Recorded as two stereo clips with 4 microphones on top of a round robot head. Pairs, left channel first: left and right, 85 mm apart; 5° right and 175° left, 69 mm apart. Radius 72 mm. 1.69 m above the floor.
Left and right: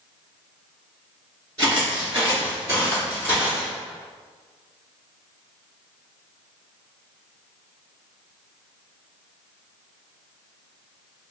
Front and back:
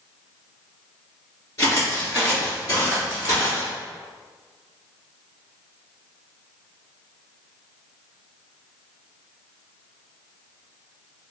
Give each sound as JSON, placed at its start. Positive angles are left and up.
{"t": 1.6, "sound": "footsteps", "azimuth_deg": -45, "distance_m": 1.8}